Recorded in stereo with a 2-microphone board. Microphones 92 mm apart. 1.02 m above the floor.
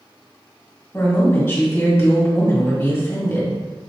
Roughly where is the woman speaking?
Left.